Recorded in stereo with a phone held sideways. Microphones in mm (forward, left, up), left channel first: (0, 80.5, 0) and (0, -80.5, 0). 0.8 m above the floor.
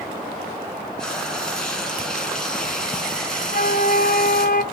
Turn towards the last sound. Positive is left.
turn(degrees=55)  # may be behind; listen again after turning